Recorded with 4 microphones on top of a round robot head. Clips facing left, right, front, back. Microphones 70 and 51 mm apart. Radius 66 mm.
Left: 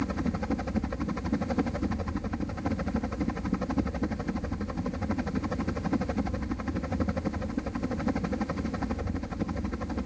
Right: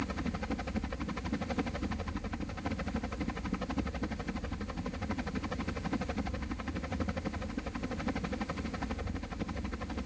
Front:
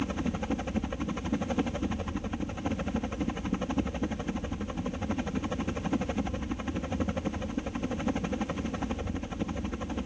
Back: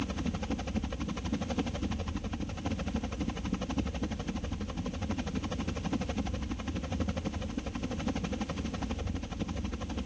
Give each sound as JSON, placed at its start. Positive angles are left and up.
{"t": 0.0, "sound": "a helicopter", "azimuth_deg": 45}